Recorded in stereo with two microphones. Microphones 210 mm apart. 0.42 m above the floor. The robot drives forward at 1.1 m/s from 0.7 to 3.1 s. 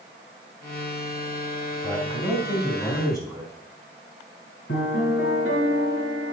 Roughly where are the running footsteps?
I don't hear running footsteps.